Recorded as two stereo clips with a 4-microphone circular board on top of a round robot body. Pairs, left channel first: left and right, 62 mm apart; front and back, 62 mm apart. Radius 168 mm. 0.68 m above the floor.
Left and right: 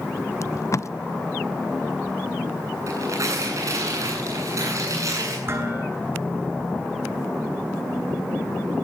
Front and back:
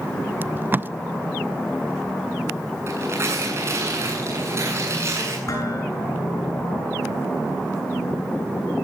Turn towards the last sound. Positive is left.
turn(degrees=-40)